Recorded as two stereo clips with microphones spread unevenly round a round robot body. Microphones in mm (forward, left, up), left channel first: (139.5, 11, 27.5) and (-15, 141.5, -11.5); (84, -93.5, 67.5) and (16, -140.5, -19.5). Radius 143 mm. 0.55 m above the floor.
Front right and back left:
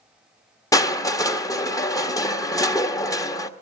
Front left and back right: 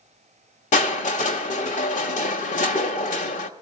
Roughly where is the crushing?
Ahead left.